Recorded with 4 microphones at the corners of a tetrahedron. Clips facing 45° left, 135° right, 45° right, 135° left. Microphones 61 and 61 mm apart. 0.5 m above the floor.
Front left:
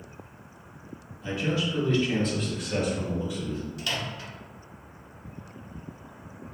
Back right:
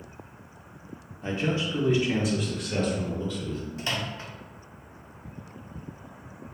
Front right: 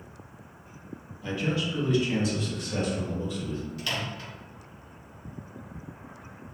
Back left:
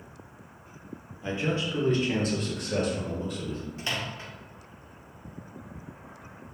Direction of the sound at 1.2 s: 165° right.